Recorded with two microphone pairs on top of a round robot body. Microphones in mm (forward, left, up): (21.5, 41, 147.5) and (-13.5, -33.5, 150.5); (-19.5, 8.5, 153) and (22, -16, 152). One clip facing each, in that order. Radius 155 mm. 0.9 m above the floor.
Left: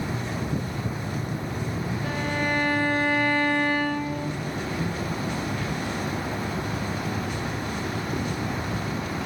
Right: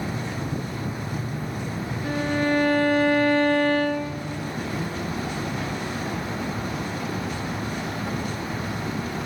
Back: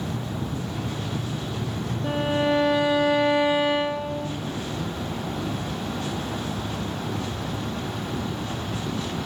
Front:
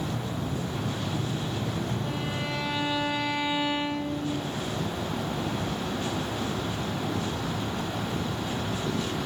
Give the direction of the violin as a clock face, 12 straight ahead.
7 o'clock.